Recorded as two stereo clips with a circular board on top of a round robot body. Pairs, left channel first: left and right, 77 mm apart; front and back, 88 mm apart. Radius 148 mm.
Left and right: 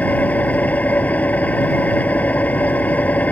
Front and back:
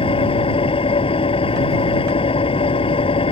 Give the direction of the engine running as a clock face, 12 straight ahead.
11 o'clock.